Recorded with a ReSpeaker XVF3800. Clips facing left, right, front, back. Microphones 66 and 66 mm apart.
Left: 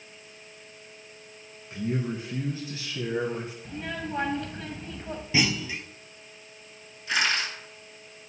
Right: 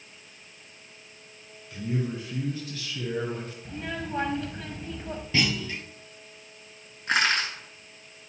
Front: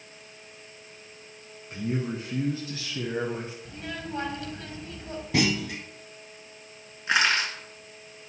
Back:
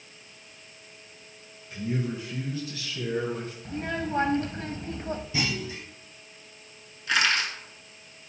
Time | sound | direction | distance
1.7 | a man speaking | 35° left | 1.9 m
3.6 | a child speaking | straight behind | 1.0 m
5.3 | a clunk | 15° left | 1.0 m
7.1 | crushing | 60° right | 3.5 m